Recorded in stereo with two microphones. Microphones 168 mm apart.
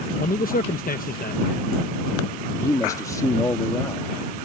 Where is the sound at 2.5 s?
20° left (ahead or behind).